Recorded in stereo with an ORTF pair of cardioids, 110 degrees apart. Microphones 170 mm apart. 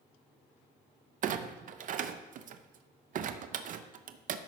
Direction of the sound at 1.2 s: 50° right.